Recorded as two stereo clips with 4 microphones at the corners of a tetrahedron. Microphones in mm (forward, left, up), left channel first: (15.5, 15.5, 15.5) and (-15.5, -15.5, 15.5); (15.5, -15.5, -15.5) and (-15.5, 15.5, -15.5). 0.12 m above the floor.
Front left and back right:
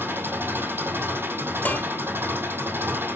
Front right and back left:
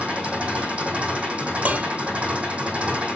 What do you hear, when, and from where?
0.0 s an engine running: 165° right, 5 m
1.6 s dishes clattering: 90° left, 1.6 m